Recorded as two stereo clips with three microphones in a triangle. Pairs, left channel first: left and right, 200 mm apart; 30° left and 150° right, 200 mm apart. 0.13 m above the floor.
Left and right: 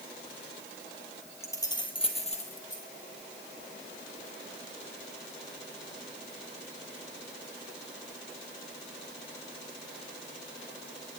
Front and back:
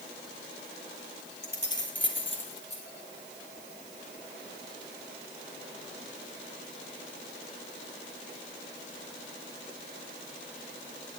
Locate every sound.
1.4 s keys jangling: 15° left, 1.9 m; by 2.8 s 40° left, 3 m